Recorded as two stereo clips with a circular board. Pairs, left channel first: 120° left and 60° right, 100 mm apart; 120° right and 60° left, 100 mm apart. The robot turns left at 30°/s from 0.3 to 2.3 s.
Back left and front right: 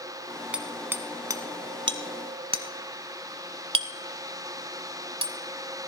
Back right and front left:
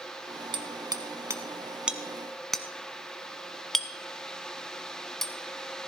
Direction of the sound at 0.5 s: 20° left.